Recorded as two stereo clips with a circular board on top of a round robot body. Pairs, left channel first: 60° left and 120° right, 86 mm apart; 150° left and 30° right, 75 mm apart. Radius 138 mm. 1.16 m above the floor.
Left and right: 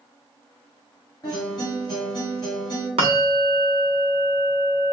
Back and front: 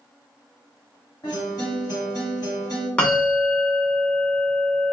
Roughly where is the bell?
Behind right.